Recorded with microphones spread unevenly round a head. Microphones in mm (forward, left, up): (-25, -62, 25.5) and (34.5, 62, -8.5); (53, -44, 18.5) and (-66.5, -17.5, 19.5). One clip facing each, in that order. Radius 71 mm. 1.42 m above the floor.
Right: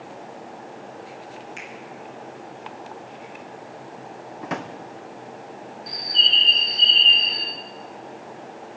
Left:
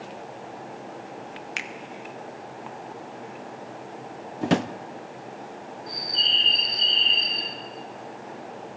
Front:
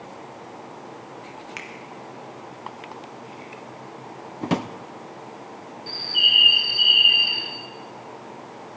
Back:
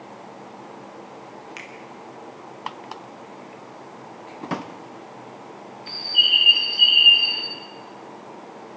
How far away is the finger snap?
About 1.2 m.